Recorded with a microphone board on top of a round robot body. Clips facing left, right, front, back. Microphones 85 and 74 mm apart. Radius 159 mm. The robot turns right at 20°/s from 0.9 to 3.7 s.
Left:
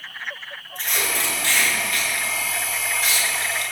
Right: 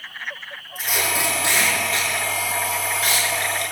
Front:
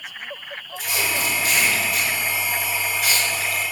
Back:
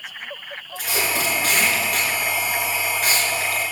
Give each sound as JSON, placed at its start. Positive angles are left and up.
{"t": 0.8, "sound": "tape being pulled", "azimuth_deg": -175, "distance_m": 5.0}